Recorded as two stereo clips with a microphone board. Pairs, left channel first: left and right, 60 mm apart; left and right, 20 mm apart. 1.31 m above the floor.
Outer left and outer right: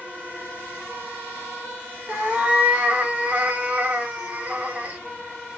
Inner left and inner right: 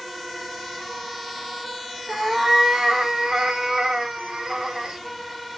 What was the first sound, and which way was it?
A cat meowing, 30° right (ahead or behind).